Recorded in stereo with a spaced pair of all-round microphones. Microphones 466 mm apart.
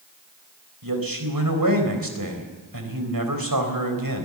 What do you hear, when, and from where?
0.8 s a man speaking: 45° right (ahead or behind), 4 m